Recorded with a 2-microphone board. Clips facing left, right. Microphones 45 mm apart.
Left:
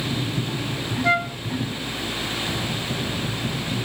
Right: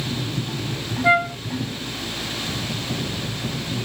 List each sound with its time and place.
1.0 s a flute: 15° right (ahead or behind)